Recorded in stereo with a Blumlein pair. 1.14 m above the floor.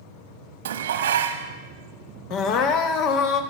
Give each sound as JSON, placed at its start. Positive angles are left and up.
{"t": 0.7, "sound": "dishes clattering", "azimuth_deg": -60, "distance_m": 1.0}
{"t": 2.3, "sound": "crying", "azimuth_deg": 35, "distance_m": 1.0}